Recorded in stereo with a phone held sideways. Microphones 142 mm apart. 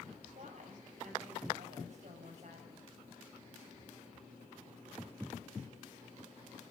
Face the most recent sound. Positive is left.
turn(degrees=-55)  # may be behind; listen again after turning